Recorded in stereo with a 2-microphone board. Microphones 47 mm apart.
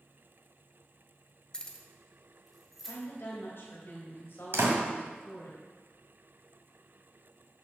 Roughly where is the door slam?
Right.